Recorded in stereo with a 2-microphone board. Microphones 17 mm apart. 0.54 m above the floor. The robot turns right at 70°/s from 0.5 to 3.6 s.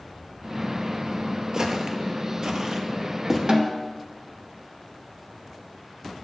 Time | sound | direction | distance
1.5 | footsteps | 30° right (ahead or behind) | 0.7 m
3.5 | a snare drum | 40° right (ahead or behind) | 0.6 m